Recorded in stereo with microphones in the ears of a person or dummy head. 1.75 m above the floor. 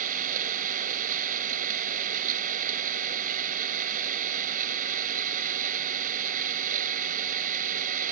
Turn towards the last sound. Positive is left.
turn(degrees=-45)  # may be behind; listen again after turning